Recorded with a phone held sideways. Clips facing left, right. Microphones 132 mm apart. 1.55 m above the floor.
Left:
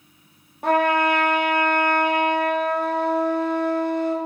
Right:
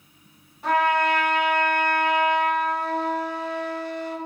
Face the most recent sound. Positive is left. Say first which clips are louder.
# left 2 dB
turn(degrees=55)  # may be behind; listen again after turning